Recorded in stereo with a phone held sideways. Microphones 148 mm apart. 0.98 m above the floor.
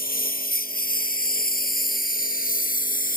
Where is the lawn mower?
85° left; by 3.2 s 75° left (ahead or behind).